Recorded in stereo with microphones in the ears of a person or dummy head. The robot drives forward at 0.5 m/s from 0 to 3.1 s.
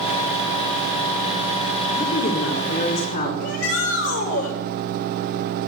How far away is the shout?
About 6.5 m.